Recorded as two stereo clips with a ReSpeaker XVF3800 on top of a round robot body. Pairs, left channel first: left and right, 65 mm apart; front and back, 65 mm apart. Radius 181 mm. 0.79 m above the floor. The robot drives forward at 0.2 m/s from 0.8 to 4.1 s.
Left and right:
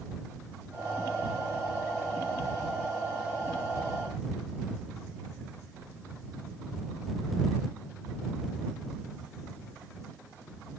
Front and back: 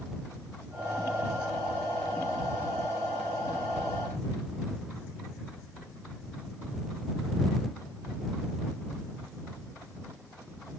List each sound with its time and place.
Only background noise.